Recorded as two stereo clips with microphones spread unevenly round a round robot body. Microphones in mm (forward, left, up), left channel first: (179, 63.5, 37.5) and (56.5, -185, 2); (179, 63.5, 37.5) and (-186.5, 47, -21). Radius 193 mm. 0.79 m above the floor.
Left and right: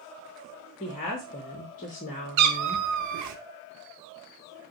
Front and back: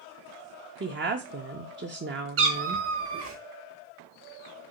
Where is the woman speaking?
135° left, 0.6 m.